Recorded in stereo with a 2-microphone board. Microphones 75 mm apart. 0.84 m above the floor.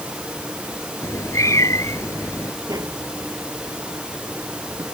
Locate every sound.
1.0 s a cat meowing: 45° left (ahead or behind)
2.7 s tapping: 55° right (ahead or behind)